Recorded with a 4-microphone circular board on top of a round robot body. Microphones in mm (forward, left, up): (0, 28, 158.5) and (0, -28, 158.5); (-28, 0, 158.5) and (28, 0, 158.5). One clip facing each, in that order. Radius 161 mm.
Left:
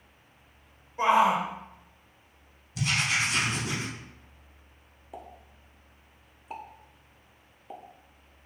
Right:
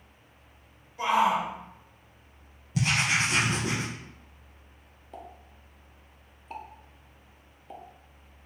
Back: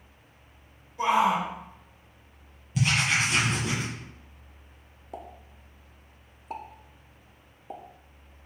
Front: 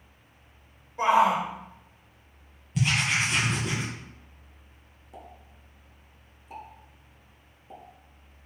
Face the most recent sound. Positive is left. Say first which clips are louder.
# even, back 5 dB
turn(degrees=170)